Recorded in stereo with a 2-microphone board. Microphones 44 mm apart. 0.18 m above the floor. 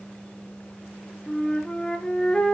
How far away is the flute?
About 2 m.